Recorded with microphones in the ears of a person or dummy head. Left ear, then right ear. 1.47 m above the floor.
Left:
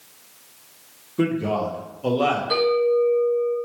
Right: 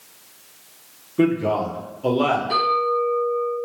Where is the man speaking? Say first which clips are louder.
Right 3 dB; centre (ahead or behind), 0.6 m.